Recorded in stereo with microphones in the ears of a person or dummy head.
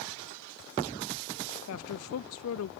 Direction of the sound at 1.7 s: 75° left (ahead or behind).